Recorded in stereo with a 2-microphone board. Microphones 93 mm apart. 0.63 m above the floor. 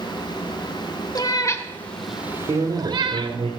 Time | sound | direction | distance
1.1 | a cat meowing | 45° left (ahead or behind) | 1.0 m
2.5 | a man speaking | 70° right (ahead or behind) | 1.7 m